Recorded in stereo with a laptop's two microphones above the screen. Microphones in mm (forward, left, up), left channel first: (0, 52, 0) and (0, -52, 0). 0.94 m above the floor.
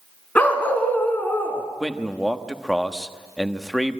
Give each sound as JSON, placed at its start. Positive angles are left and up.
{"t": 0.3, "sound": "a dog barking", "side_deg": 15, "distance_m": 2.0}
{"t": 1.8, "sound": "a man speaking", "side_deg": 0, "distance_m": 1.1}